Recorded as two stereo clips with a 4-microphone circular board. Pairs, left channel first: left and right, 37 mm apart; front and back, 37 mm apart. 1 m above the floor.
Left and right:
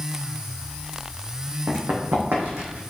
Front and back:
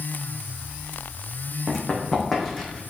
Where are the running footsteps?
90° right, 3.5 m; by 2.8 s 80° right, 2.5 m.